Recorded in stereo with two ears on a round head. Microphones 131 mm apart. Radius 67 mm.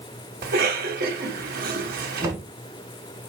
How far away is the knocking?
About 3.5 m.